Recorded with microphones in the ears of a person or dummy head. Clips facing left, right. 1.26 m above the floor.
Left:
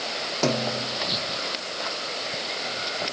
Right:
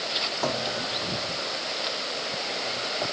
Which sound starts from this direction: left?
A snare drum, at 0.4 s.